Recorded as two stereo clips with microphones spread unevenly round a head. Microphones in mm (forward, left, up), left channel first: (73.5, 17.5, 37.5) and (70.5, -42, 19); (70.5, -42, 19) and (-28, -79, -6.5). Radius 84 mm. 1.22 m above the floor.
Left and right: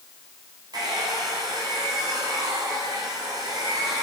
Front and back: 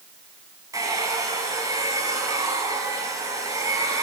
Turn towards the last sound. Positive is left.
turn(degrees=-100)